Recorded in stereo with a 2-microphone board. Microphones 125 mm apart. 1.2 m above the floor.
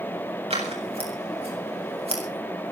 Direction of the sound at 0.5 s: 55° right (ahead or behind).